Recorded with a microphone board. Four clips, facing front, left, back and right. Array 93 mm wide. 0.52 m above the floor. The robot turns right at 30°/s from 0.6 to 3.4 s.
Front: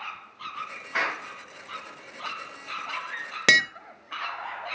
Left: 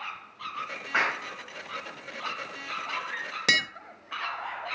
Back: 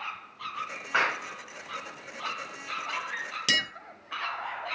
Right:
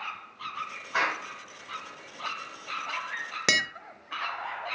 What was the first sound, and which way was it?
A clap, 150° left.